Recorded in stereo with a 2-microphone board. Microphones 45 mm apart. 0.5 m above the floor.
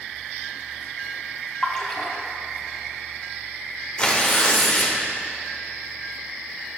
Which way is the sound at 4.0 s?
25° left (ahead or behind).